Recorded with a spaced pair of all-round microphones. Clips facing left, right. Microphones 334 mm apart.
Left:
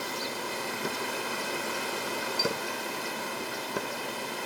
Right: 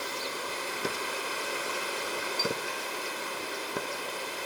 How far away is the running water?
About 2.5 m.